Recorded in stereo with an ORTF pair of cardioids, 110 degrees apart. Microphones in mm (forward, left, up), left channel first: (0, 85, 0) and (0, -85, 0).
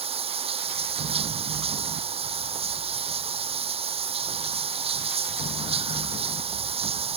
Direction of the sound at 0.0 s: 35° right.